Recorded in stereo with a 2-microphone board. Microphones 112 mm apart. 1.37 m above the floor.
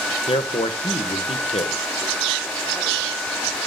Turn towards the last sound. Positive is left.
turn(degrees=65)  # may be behind; listen again after turning